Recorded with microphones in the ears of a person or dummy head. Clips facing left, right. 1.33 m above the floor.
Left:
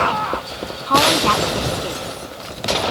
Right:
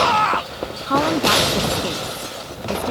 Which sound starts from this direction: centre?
A woman speaking, at 0.9 s.